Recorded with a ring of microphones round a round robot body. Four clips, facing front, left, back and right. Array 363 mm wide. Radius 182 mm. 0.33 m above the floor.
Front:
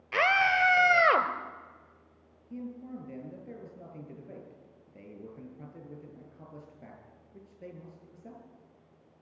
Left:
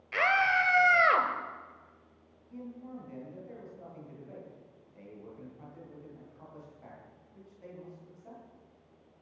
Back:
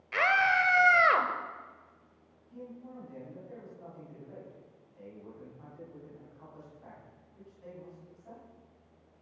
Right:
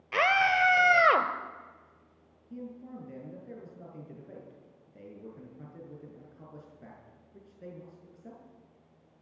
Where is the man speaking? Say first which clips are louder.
Right 1 dB, front 5 dB; 35° right, 7.5 m.